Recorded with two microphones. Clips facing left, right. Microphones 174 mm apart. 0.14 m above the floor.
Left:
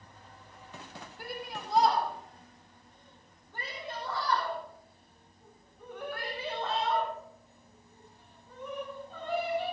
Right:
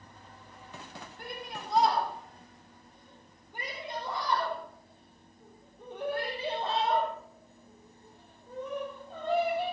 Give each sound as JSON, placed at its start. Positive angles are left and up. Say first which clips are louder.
{"t": 1.2, "sound": "a shout", "louder": "left 2 dB", "side_deg": 5, "distance_m": 6.0}